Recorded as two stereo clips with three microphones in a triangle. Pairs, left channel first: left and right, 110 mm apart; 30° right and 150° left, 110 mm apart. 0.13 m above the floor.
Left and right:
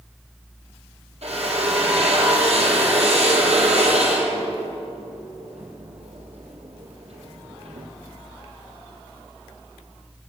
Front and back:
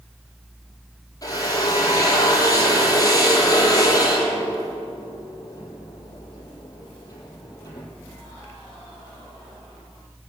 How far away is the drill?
About 4.5 m.